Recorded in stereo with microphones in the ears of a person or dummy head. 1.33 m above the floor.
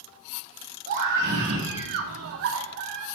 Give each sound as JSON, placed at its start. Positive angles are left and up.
{"t": 0.9, "sound": "a scream", "side_deg": -50, "distance_m": 1.2}